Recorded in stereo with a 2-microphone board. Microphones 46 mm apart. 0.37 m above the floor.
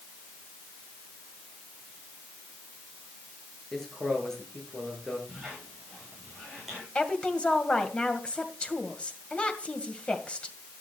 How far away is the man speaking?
About 6.5 m.